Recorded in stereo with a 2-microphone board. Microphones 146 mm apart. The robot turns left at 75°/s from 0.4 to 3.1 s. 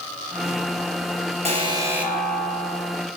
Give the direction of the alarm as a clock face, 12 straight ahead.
4 o'clock.